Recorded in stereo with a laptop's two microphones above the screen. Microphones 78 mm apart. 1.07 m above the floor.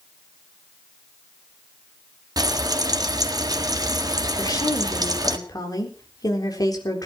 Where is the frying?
55° right (ahead or behind), 1.6 m.